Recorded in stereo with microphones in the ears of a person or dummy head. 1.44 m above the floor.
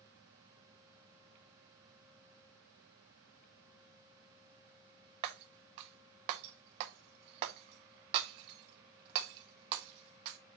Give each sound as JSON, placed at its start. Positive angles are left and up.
{"t": 5.2, "sound": "breaking glass", "side_deg": -30, "distance_m": 0.6}